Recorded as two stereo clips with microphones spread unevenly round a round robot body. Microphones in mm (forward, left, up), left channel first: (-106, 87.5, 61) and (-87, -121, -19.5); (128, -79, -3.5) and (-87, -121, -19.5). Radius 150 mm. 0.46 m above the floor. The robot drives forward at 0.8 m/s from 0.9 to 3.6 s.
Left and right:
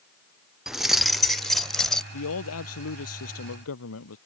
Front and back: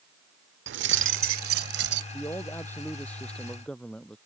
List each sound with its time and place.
0.7 s keys jangling: 160° right; by 2.0 s 170° right
2.1 s a man speaking: 95° left; by 4.2 s 100° left